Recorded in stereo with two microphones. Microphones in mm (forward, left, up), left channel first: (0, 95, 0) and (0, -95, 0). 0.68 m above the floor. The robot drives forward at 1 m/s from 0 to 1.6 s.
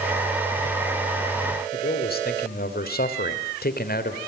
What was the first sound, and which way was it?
A man speaking, 55° left (ahead or behind).